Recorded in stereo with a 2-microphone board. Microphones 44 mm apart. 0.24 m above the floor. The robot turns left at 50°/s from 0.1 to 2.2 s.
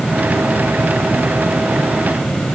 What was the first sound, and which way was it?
Only background noise.